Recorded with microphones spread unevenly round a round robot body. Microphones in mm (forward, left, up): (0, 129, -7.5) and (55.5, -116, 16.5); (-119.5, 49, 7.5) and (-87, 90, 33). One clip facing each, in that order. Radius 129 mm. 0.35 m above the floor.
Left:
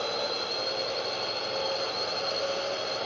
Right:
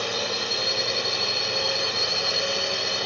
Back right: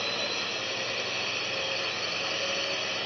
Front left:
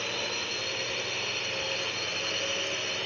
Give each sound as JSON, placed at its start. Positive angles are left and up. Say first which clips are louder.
{"t": 0.0, "sound": "a drone", "louder": "right 2 dB, back right 1 dB", "azimuth_deg": -55}